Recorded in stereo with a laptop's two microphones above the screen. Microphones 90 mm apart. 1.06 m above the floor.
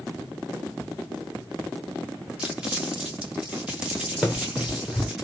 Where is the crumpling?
10° right (ahead or behind), 1.6 m.